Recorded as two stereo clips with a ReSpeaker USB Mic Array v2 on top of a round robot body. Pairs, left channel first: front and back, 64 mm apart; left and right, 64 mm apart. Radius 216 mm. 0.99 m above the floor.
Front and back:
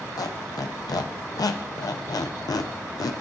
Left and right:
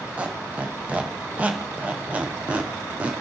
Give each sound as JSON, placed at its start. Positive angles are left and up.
{"t": 0.2, "sound": "a squeak", "azimuth_deg": -20, "distance_m": 0.5}